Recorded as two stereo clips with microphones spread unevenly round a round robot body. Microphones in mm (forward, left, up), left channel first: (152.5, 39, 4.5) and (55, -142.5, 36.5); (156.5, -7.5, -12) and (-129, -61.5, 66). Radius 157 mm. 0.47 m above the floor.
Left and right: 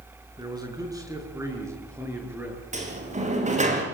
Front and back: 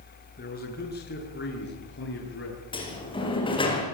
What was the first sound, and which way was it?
A man speaking, 45° right.